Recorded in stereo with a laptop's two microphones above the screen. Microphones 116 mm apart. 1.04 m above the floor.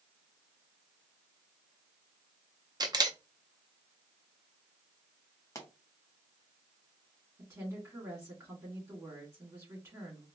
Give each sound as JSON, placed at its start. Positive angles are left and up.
{"t": 2.8, "sound": "a camera shutter", "side_deg": -35, "distance_m": 0.5}
{"t": 5.5, "sound": "a pop", "side_deg": 25, "distance_m": 0.7}
{"t": 7.4, "sound": "a woman speaking", "side_deg": -20, "distance_m": 2.0}